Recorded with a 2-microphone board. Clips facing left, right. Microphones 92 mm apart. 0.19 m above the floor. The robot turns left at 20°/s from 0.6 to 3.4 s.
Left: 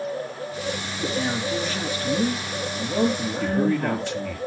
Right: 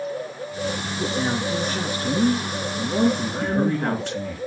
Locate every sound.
1.0 s a man speaking: 25° right, 3 m; by 4.4 s 75° right, 3 m
3.4 s a man speaking: 55° right (ahead or behind), 3 m